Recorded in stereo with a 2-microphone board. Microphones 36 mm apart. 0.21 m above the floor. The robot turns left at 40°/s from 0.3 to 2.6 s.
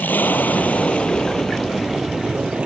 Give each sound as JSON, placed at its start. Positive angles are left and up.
{"t": 0.0, "sound": "an aircraft", "azimuth_deg": 60}